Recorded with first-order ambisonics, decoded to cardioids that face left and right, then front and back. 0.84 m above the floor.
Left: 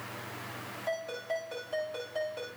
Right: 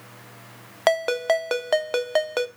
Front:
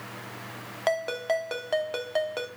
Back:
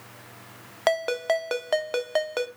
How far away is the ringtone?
About 0.7 m.